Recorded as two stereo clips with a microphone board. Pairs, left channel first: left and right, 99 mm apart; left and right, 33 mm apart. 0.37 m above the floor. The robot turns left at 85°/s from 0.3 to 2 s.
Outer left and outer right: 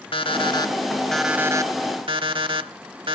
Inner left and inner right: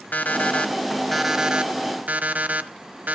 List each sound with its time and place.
0.1 s an alarm clock: 75° left, 0.9 m; by 3.1 s 70° right, 0.9 m